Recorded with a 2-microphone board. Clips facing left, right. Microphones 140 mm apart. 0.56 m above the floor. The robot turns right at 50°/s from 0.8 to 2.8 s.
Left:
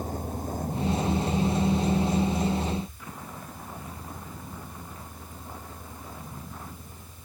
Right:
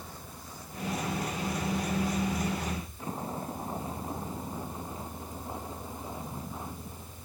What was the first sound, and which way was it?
A vehicle, 50° left (ahead or behind).